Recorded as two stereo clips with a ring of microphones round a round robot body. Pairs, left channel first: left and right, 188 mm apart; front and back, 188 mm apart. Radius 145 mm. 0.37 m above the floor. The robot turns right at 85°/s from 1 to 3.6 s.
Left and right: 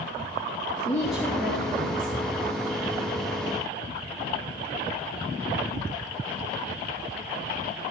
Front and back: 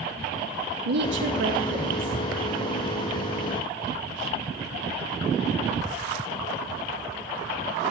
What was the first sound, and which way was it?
A woman speaking, 170° left.